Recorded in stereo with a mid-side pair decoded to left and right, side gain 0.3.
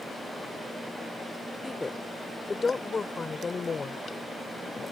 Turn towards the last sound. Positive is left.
turn(degrees=55)